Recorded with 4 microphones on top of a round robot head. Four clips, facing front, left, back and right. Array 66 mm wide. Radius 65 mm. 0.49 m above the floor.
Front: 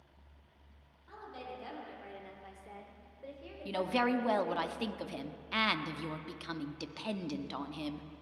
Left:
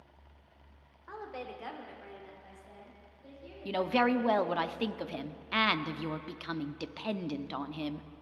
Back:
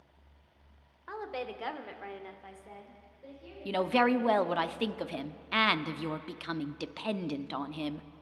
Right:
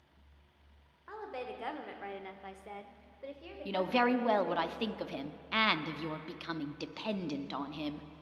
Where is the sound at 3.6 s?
170° left, 0.7 m.